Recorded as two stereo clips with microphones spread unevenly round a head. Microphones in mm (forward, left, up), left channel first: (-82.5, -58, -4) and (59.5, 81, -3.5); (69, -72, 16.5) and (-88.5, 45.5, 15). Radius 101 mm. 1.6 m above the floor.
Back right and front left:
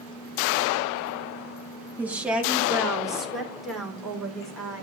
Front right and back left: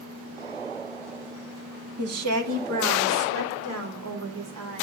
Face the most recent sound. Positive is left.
turn(degrees=135)